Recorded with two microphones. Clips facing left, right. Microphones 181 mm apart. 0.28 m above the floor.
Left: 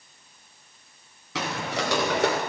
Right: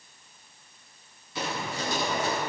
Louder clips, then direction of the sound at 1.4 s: Left 3 dB; 75° left (ahead or behind).